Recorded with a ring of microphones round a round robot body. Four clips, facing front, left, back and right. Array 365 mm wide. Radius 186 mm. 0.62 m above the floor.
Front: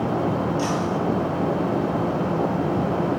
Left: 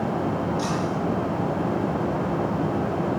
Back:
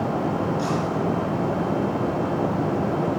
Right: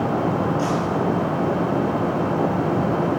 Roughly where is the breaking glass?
Ahead left.